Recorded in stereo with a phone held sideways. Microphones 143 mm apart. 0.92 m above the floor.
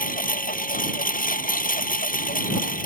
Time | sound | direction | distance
0.0 | a lawn mower | 80° left | ?